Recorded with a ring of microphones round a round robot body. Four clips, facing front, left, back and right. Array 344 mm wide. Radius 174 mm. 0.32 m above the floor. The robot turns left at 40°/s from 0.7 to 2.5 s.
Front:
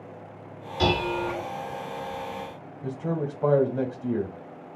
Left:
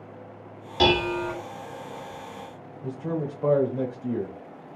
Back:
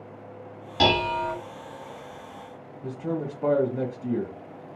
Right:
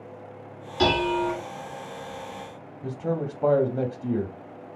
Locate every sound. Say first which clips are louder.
0.8 s dishes clattering: even, back 2 dB; 140° left, 1.7 m; by 1.4 s 115° left, 1.7 m
2.8 s a man speaking: right 1 dB, front 1 dB; 60° right, 0.9 m